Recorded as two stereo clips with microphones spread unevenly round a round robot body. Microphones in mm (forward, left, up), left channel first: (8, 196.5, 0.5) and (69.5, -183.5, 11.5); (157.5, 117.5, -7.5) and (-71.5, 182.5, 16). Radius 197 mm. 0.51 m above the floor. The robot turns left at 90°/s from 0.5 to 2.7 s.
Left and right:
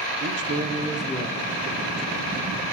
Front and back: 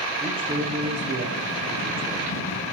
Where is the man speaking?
125° right, 0.9 m; by 2.4 s 60° left, 0.9 m.